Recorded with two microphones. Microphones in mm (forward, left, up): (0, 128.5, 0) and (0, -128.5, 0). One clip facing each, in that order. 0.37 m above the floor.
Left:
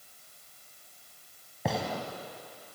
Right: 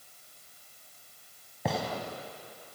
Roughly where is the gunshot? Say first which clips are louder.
Even; centre.